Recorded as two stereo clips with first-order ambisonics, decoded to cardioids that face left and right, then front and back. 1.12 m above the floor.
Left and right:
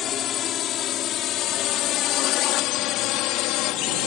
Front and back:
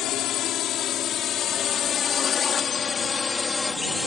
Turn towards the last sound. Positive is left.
turn(degrees=80)